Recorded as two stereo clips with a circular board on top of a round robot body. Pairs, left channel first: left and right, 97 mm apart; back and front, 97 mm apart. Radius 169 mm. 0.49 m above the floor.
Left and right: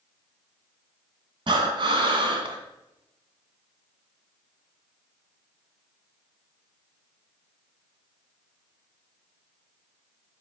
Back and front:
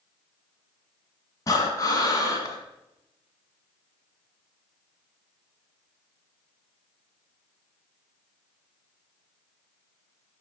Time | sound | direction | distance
1.5 | breathing | 125° right | 1.8 m